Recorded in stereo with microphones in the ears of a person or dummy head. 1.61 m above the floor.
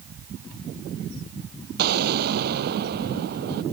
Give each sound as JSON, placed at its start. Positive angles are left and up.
{"t": 1.8, "sound": "an explosion", "side_deg": -55}